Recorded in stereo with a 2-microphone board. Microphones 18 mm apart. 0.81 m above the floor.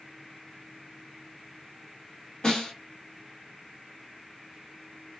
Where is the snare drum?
55° left (ahead or behind), 1.6 m.